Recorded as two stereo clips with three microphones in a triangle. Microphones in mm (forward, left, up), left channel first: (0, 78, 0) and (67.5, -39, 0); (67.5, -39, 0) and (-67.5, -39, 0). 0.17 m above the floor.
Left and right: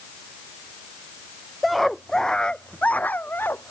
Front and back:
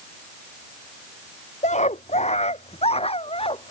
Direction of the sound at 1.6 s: 30° left.